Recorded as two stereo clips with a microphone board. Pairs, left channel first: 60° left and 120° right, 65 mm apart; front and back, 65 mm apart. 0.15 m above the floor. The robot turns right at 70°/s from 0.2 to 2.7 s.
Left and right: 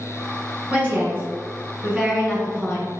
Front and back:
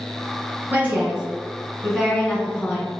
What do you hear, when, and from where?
0.7 s a woman speaking: 160° right, 1.3 m; by 2.9 s 20° right, 1.3 m